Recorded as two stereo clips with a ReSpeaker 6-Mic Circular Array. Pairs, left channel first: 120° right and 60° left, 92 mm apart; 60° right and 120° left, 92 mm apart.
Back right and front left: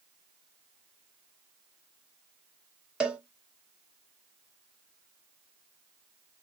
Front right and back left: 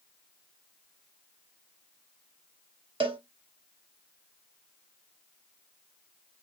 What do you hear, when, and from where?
3.0 s a cowbell: 140° left, 0.5 m